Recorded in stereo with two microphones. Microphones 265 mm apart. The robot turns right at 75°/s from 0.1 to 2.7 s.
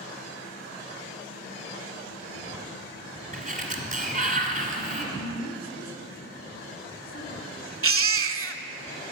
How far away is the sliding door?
About 1.8 m.